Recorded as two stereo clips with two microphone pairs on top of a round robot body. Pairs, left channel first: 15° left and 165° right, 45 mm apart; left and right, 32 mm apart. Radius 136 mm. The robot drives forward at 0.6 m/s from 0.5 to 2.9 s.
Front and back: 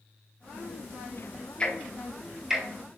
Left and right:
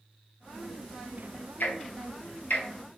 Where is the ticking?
80° left, 1.0 m; by 2.6 s 115° left, 1.1 m.